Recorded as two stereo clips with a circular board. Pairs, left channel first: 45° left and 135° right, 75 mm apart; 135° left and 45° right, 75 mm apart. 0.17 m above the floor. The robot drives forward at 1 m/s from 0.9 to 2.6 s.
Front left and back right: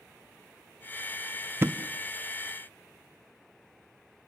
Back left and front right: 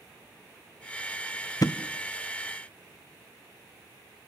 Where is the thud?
170° left, 1.0 m.